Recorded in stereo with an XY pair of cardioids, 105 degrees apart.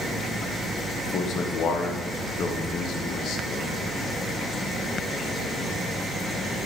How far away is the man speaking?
About 1.1 m.